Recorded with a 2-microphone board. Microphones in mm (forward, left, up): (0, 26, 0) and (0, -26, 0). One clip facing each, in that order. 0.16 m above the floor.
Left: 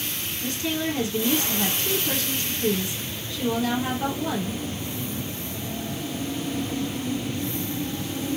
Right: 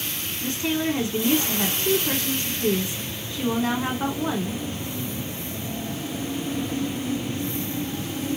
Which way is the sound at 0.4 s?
30° right (ahead or behind).